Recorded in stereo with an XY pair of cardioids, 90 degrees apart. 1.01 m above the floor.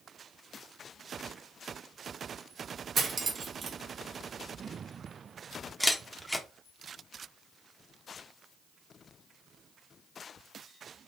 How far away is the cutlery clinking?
About 0.6 m.